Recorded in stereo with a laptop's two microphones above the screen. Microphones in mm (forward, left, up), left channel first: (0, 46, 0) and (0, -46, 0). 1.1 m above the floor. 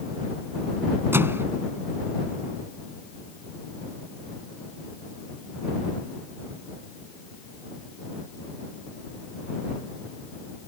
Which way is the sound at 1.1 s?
25° right (ahead or behind).